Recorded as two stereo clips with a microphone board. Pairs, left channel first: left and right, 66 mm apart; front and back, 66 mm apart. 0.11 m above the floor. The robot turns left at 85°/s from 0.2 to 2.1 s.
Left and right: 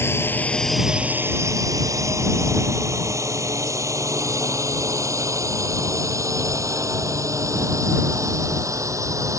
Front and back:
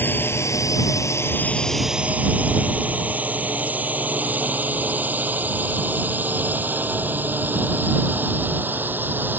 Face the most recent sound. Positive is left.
turn(degrees=-120)